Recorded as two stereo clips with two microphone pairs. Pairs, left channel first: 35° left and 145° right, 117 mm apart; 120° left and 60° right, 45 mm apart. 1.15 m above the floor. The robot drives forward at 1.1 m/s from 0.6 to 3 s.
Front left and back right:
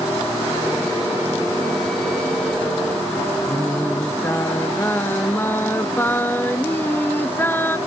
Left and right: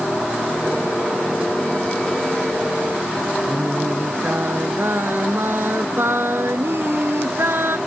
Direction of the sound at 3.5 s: 35° right.